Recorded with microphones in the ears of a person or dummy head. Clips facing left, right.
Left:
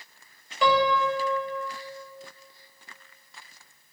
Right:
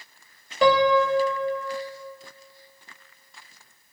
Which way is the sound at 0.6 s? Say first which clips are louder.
Right 5 dB; 35° right (ahead or behind).